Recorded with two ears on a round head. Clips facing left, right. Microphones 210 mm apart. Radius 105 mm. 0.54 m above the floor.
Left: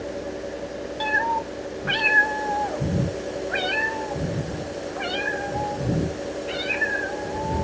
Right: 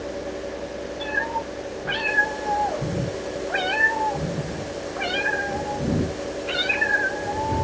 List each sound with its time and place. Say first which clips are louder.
1.0 s a cat meowing: left 1 dB; 70° left (ahead or behind), 1.8 m; by 7.6 s 15° right (ahead or behind), 3.5 m